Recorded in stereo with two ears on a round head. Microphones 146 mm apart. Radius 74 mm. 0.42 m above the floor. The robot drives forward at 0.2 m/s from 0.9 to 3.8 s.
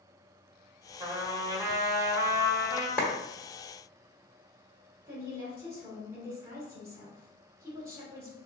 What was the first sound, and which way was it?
A trumpet, 20° right (ahead or behind).